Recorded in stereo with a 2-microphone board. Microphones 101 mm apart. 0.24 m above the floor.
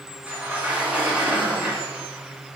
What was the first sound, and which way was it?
A sliding door, 15° right (ahead or behind).